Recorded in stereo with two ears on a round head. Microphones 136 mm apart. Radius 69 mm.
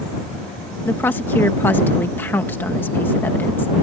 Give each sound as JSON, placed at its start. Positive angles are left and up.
{"t": 0.8, "sound": "a woman speaking", "side_deg": 10}